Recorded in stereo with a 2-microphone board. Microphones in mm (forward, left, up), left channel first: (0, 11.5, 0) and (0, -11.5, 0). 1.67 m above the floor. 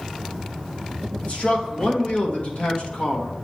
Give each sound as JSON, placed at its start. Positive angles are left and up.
{"t": 1.2, "sound": "a man speaking", "side_deg": 70, "distance_m": 1.5}